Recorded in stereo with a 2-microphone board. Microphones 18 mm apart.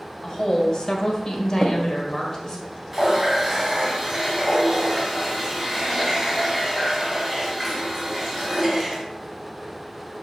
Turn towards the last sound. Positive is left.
turn(degrees=-15)  # may be behind; listen again after turning